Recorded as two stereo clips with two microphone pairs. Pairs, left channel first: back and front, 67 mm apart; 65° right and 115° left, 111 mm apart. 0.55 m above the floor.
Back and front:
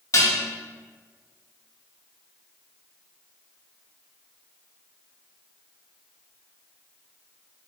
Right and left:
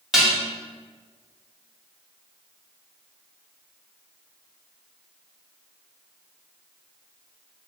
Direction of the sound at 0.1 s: 160° right.